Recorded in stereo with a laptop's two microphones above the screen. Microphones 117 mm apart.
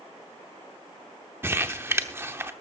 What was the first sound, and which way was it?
Crumpling, 20° right (ahead or behind).